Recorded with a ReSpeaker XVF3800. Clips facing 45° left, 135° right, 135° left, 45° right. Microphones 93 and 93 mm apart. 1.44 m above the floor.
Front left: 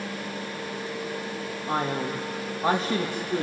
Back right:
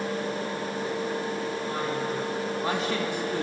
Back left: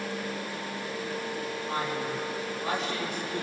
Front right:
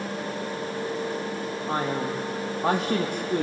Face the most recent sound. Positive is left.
turn(degrees=-35)